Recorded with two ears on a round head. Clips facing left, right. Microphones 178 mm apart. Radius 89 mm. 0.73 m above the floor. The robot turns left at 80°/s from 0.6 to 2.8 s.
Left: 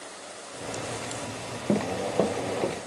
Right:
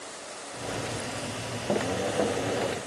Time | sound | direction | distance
1.7 | running footsteps | 35° left (ahead or behind) | 0.9 m